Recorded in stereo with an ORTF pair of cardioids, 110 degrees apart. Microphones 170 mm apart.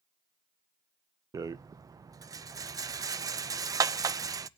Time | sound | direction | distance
1.3 | a rattle | 20° right | 0.5 m